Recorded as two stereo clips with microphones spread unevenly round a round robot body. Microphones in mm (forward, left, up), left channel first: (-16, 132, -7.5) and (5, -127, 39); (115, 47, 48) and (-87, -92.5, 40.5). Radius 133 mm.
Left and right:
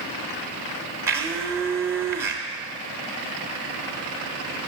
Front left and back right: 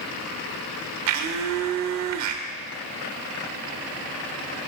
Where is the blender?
170° right, 0.6 m.